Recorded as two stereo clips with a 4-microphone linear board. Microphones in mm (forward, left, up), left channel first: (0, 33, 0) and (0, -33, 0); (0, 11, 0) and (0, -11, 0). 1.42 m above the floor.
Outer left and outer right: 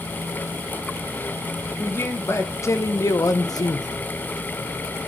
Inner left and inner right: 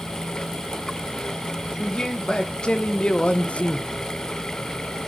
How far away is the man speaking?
About 1.8 m.